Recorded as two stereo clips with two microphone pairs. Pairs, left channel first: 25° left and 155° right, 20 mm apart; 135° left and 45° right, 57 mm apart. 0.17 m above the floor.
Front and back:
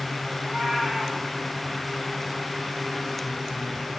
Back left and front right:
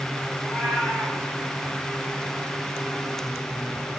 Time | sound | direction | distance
0.4 | a cat meowing | 135° right | 5 m